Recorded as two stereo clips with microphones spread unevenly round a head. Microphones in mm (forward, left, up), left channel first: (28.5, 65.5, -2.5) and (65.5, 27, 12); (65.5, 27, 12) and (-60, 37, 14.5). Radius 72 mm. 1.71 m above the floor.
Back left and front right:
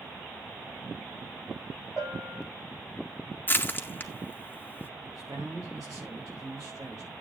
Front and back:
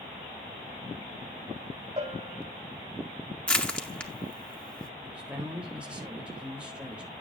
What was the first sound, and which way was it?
A bell, 120° right.